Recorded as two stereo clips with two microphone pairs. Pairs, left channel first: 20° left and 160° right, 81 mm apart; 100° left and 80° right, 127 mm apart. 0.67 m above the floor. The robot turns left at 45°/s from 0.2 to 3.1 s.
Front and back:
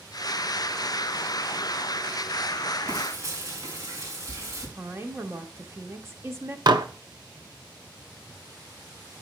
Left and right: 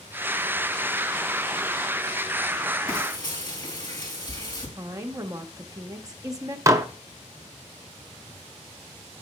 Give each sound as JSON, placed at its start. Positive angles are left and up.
{"t": 2.9, "sound": "frying", "azimuth_deg": 160, "distance_m": 3.5}
{"t": 4.8, "sound": "a woman speaking", "azimuth_deg": -125, "distance_m": 1.0}
{"t": 6.7, "sound": "dishes clattering", "azimuth_deg": -145, "distance_m": 0.6}